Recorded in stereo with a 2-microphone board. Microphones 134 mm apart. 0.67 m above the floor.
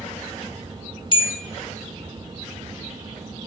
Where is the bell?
35° left (ahead or behind), 1.1 m.